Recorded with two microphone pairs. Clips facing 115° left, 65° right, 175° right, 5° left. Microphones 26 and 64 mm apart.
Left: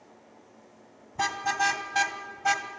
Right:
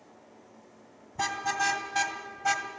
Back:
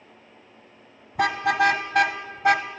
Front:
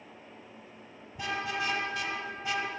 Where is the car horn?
165° right, 2.5 m.